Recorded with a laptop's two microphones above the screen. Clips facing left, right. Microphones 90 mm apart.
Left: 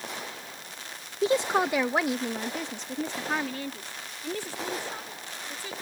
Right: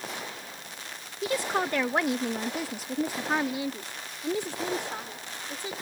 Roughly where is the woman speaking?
Left.